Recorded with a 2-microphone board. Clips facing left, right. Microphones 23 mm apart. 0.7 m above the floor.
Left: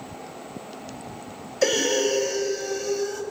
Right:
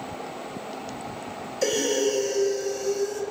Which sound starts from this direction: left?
Breathing, at 1.6 s.